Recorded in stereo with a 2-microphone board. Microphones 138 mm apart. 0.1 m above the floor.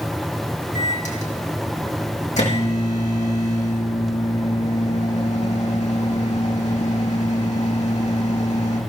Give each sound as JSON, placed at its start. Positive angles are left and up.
{"t": 0.8, "sound": "a microwave", "side_deg": 65, "distance_m": 4.0}